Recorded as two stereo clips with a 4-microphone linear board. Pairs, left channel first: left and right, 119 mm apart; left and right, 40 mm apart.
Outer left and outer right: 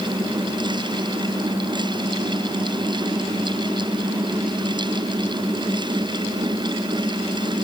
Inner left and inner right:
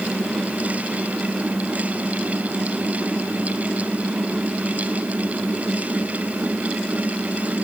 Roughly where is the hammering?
I don't hear hammering.